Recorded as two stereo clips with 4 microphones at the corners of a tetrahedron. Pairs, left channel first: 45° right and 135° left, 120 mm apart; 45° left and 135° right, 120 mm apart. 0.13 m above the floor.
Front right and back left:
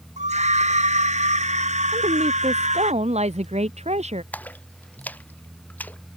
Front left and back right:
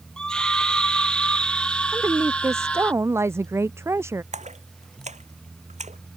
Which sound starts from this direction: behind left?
A scream, at 0.2 s.